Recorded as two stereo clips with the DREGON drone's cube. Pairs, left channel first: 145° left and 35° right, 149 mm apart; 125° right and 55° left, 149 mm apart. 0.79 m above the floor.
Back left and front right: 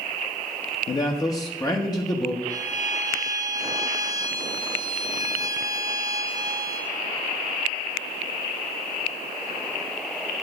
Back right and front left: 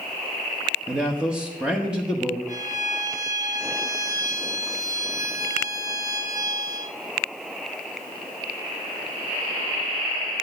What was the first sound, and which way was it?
A man speaking, 135° left.